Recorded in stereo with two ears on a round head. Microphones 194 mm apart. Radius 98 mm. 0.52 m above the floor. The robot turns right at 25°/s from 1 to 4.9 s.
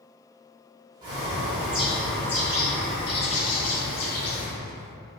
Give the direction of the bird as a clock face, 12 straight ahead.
1 o'clock.